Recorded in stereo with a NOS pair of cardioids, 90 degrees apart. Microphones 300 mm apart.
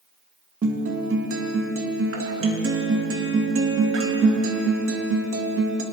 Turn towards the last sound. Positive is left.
turn(degrees=-50)